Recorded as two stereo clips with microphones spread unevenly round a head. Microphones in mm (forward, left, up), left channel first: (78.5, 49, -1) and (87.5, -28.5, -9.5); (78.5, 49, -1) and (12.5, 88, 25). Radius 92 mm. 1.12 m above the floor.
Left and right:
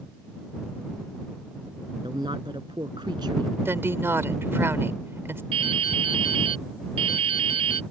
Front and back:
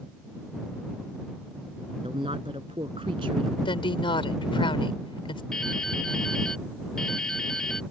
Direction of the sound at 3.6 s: 20° right.